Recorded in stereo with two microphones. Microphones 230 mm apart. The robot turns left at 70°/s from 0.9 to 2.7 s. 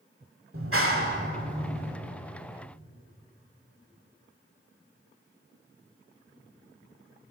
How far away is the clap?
About 1.4 m.